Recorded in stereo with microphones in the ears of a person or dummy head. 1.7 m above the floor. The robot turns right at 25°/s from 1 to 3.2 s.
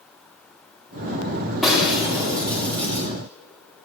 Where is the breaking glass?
175° left, 3 m; by 3.1 s 150° right, 3 m.